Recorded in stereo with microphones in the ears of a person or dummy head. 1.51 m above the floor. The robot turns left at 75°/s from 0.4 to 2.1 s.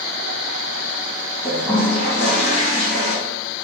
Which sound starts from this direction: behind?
A toilet flushing, at 1.4 s.